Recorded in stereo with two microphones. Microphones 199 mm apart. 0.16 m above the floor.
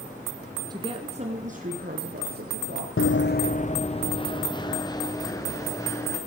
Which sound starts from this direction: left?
Running footsteps, at 3.0 s.